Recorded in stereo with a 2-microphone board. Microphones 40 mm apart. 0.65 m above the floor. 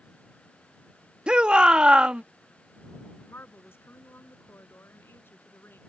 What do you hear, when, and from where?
1.3 s a shout: 25° right (ahead or behind)
3.3 s a woman speaking: 75° left (ahead or behind)